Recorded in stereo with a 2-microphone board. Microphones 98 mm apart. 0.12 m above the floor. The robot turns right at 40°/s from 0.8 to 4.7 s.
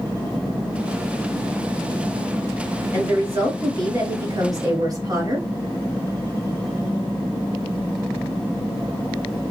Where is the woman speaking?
150° right, 2 m; by 5.5 s 80° right, 2 m.